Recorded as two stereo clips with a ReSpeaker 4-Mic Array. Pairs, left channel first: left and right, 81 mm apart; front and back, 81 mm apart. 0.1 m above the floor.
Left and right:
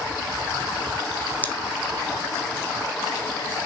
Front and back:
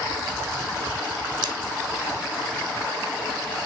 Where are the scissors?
155° left, 0.7 m.